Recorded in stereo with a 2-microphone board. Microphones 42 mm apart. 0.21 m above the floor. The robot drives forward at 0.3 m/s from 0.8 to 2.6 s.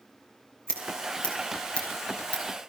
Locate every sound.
0.7 s scissors: 25° left (ahead or behind), 5 m; by 2.4 s 30° left (ahead or behind), 4.5 m